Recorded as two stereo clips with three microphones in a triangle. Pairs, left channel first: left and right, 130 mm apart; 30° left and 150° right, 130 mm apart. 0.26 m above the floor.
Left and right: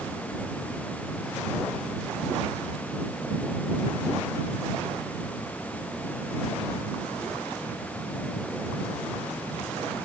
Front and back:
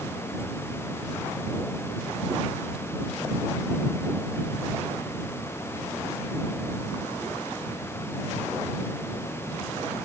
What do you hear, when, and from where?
Only background noise.